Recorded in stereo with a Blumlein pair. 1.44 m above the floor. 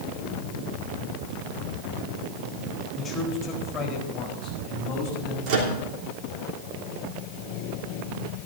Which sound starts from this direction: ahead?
A man speaking, at 3.0 s.